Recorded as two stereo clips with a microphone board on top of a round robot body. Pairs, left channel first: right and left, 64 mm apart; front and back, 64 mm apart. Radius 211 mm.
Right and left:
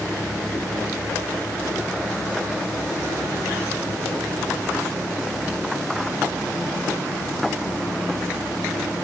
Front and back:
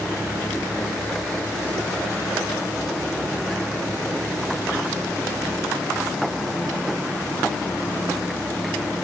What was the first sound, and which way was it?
Only background noise.